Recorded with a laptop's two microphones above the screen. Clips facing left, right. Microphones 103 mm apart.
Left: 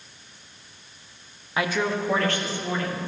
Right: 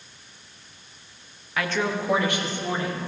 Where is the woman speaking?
25° left (ahead or behind), 0.5 m; by 3.1 s 25° right (ahead or behind), 2.5 m.